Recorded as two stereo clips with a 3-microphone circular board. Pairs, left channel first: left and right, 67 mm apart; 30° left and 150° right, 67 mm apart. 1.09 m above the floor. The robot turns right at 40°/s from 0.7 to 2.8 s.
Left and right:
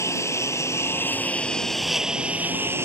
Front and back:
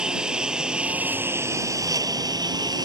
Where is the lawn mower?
135° left; by 2.9 s 140° right.